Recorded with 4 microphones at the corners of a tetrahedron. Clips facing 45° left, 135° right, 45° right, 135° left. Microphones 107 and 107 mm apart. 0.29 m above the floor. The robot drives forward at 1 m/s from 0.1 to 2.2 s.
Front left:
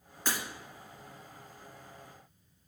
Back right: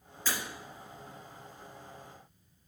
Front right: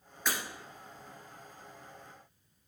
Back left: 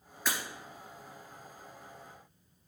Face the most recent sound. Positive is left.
turn(degrees=110)